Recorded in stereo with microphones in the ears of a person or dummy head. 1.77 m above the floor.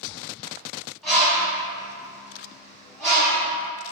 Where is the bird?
5° right (ahead or behind), 1.0 m.